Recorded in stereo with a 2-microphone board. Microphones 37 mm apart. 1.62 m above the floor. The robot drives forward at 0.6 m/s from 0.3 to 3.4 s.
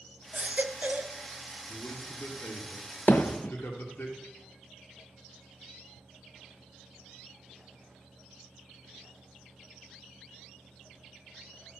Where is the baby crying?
40° right (ahead or behind), 1.9 m; by 1.2 s 50° right (ahead or behind), 1.6 m.